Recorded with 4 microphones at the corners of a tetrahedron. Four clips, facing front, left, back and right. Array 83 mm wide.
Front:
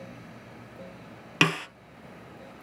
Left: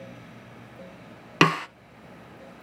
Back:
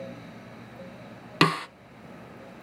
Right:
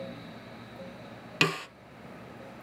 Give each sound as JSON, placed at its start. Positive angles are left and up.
{"t": 1.4, "sound": "a snare drum", "azimuth_deg": 115, "distance_m": 0.6}